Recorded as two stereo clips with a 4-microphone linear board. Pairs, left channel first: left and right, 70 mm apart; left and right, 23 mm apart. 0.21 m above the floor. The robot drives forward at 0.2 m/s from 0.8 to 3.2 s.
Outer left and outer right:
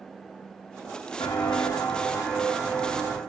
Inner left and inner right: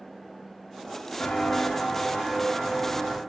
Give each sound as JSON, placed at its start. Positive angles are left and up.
{"t": 1.2, "sound": "footsteps", "side_deg": 70, "distance_m": 0.9}